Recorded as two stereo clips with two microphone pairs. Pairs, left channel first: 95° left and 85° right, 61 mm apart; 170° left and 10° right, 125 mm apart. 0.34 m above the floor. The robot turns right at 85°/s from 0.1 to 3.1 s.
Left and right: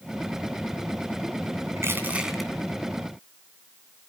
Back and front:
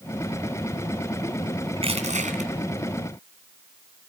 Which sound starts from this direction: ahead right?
Crushing, at 1.8 s.